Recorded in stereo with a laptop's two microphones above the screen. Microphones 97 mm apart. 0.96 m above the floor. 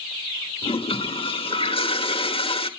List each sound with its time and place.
0.6 s a toilet flushing: 70° left (ahead or behind), 1.1 m